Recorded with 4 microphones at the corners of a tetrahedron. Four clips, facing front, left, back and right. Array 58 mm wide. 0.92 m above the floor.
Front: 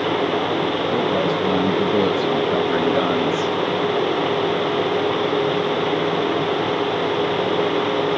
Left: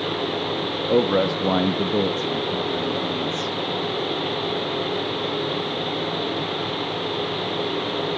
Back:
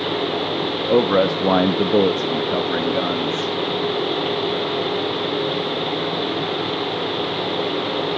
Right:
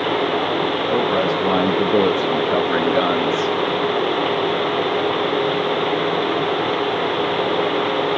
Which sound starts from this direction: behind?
A man speaking, at 0.9 s.